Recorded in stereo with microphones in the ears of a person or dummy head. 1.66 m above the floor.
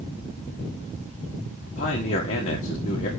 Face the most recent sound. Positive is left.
turn(degrees=40)  # may be behind; listen again after turning